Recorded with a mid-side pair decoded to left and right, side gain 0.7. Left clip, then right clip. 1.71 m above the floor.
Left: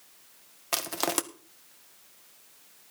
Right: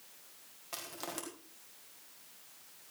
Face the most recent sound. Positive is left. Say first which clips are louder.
# left 13 dB
turn(degrees=55)